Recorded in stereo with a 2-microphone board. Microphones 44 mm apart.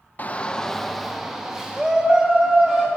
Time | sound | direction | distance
0.2 | a shout | 40° left (ahead or behind) | 0.6 m